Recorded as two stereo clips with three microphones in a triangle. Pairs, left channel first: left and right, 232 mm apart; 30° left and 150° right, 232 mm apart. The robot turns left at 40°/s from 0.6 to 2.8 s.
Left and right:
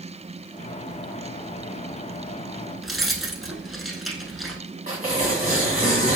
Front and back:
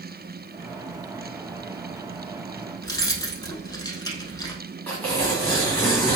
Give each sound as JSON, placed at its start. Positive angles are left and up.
{"t": 2.8, "sound": "keys jangling", "azimuth_deg": 0, "distance_m": 0.8}
{"t": 4.9, "sound": "tearing paper", "azimuth_deg": 110, "distance_m": 1.9}